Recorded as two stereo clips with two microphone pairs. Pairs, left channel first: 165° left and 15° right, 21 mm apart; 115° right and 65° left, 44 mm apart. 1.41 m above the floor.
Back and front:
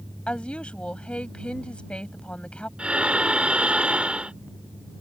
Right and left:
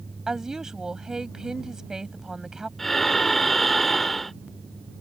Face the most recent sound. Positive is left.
turn(degrees=-30)